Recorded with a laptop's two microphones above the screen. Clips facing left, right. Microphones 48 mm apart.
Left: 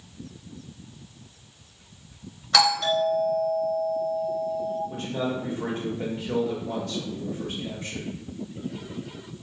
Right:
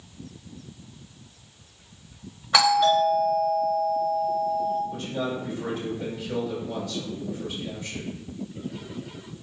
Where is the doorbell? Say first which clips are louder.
Right 3 dB; 15° right (ahead or behind), 1.2 m.